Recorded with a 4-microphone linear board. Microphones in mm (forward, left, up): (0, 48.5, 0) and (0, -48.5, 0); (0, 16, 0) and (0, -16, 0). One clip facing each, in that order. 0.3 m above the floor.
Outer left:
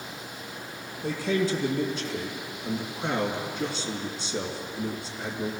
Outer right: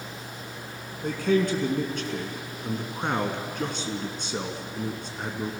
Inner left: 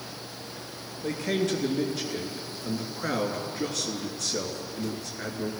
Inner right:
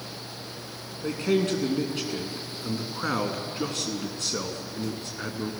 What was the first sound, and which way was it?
A man speaking, 55° right (ahead or behind).